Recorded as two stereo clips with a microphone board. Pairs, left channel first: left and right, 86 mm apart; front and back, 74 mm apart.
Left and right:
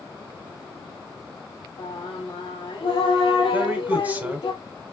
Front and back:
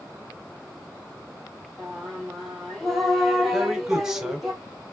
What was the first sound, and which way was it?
Singing, 85° left.